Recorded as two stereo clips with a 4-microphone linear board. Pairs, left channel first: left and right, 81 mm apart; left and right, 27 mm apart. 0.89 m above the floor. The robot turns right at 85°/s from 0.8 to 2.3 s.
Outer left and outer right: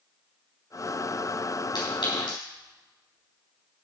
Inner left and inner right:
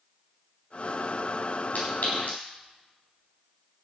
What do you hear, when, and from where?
1.8 s a clink: 65° left (ahead or behind), 4.5 m